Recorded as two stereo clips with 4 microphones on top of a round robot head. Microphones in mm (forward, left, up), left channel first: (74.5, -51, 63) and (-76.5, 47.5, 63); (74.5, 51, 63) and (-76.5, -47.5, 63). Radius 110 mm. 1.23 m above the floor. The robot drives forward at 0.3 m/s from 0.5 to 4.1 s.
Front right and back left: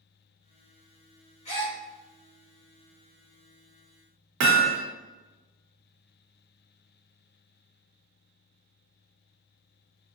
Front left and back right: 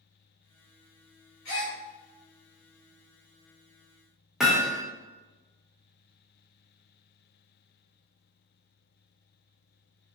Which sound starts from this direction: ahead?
A gasp, at 1.4 s.